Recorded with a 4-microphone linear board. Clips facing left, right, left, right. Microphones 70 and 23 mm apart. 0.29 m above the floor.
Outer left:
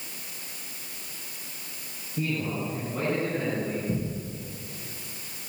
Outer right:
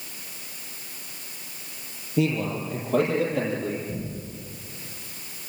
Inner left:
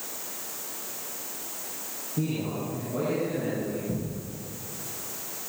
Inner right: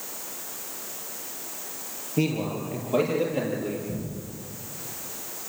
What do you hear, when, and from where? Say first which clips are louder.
2.2 s a man speaking: outer right 5 dB, inner right 4 dB; 75° right (ahead or behind), 7 m; by 3.8 s 80° right, 8 m
3.9 s a thud: outer left 3 dB, inner left 1 dB; 65° left (ahead or behind), 9.5 m